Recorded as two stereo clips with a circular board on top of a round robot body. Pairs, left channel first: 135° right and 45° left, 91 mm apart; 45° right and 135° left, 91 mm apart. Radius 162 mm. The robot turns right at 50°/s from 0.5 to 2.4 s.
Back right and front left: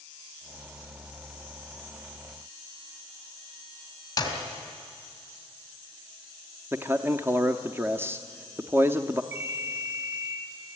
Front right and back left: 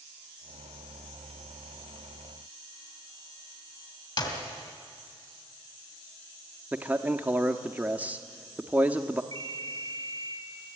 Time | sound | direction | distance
4.2 | a clap | 85° right | 3.5 m
6.7 | a man speaking | 80° left | 0.9 m
9.3 | a ringtone | 100° left | 4 m